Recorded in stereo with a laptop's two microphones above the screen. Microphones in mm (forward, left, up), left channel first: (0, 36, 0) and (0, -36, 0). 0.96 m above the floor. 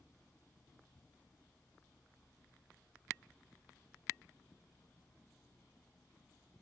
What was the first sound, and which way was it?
A fan, 10° left (ahead or behind).